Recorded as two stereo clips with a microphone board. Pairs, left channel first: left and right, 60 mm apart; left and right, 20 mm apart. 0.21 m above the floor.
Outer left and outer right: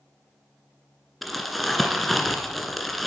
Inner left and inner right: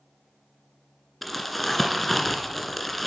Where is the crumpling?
Centre (ahead or behind), 1.5 m.